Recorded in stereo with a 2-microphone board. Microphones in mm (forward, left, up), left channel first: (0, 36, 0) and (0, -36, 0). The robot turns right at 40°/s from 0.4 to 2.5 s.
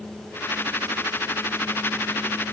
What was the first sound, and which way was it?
Only background noise.